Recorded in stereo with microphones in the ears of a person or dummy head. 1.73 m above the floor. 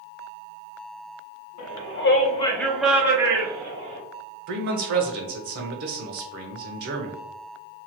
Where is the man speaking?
60° right (ahead or behind), 0.8 m.